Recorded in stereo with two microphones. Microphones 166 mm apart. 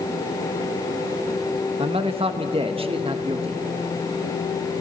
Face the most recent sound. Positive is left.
turn(degrees=-35)  # may be behind; listen again after turning